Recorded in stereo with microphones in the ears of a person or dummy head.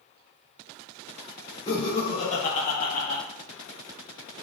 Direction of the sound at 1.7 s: 35° left (ahead or behind).